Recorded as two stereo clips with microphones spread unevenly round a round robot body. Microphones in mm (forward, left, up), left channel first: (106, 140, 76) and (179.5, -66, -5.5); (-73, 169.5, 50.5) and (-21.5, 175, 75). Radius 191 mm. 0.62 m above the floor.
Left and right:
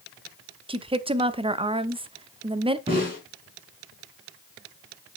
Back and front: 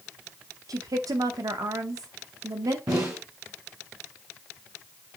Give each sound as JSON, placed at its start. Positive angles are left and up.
{"t": 0.7, "sound": "a woman speaking", "azimuth_deg": -20, "distance_m": 0.9}
{"t": 2.9, "sound": "a snare drum", "azimuth_deg": -5, "distance_m": 4.0}